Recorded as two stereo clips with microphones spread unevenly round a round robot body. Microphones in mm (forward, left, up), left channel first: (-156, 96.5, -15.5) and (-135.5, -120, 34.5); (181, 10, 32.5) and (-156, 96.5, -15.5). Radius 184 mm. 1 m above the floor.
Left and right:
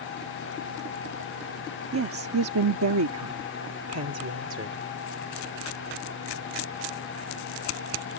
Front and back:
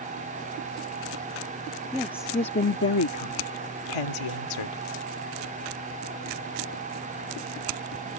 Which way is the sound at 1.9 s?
105° right.